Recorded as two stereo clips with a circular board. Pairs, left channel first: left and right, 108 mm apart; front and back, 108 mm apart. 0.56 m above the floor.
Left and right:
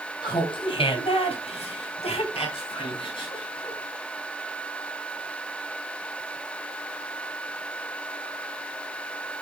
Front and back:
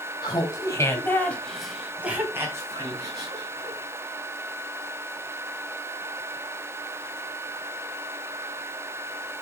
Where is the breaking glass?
No breaking glass in this recording.